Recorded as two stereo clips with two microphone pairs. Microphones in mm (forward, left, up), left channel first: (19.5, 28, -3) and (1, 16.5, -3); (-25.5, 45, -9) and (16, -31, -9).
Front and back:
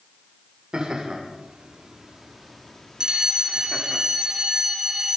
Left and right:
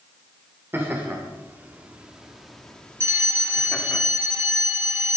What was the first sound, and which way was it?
Laughter, 120° right.